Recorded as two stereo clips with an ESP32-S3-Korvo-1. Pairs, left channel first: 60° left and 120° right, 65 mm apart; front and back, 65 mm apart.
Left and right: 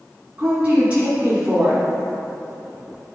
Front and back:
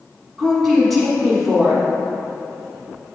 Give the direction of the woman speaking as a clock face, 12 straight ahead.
3 o'clock.